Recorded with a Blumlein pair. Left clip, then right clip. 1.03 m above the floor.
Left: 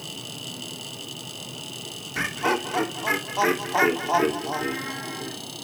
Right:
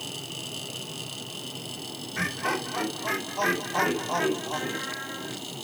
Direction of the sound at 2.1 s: 25° left.